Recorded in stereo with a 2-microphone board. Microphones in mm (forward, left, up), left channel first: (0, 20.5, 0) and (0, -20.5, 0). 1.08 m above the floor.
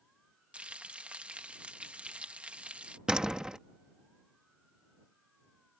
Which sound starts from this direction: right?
Frying, at 0.5 s.